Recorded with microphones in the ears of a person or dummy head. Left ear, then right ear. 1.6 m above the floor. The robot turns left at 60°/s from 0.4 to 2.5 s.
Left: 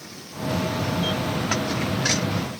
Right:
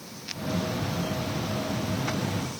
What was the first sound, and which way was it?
Only background noise.